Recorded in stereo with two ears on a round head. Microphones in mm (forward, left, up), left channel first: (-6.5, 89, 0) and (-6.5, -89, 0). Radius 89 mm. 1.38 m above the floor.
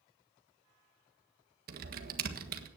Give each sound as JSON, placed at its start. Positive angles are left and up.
{"t": 1.7, "sound": "typing on a keyboard", "side_deg": -50, "distance_m": 1.6}